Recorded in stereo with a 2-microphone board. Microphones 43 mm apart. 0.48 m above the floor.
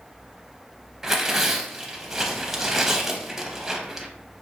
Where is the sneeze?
I don't hear a sneeze.